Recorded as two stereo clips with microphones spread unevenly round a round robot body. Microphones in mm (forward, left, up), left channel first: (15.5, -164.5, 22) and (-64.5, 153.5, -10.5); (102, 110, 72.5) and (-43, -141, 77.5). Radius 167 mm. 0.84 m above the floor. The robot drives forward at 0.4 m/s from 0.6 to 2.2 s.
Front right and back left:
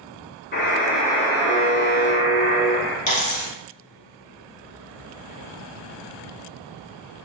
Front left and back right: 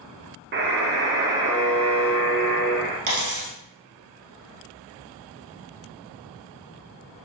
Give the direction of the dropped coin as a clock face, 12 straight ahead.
4 o'clock.